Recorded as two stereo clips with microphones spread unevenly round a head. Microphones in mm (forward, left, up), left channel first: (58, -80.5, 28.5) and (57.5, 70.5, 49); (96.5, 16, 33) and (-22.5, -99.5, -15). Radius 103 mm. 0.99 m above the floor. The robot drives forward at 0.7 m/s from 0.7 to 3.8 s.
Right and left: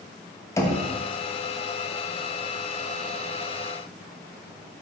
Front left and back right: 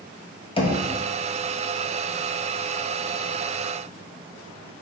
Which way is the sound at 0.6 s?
20° right.